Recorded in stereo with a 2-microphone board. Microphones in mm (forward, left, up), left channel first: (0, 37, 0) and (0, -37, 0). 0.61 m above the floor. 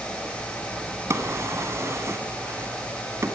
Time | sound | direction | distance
1.1 | a drawer | 40° right (ahead or behind) | 1.9 m